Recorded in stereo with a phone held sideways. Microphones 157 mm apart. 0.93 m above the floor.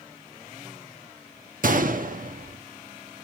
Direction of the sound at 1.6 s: 65° right (ahead or behind).